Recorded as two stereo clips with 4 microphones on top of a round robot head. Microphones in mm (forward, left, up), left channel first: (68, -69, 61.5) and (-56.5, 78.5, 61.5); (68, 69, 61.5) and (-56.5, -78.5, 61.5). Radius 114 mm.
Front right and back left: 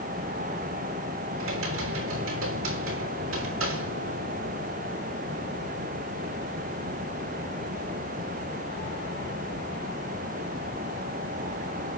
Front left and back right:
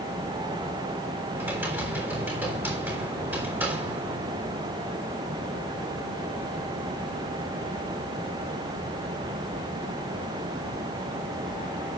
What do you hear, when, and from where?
1.4 s typing on a keyboard: 150° left, 5 m